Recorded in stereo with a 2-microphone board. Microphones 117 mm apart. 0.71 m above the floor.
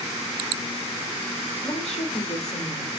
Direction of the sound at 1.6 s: 75° left (ahead or behind).